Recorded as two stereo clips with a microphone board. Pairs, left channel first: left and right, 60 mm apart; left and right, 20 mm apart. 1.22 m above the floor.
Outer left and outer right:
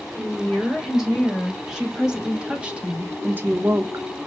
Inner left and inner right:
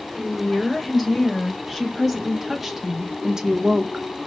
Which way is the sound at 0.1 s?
Centre (ahead or behind).